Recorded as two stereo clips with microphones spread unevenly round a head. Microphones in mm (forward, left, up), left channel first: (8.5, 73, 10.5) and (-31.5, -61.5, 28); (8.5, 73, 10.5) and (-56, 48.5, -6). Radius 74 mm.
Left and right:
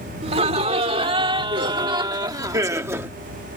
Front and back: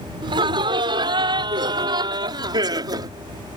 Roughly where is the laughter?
Behind right.